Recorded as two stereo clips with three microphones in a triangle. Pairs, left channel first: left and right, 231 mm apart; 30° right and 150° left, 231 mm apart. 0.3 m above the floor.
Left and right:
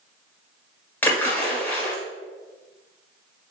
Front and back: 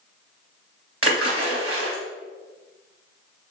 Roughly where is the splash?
Behind.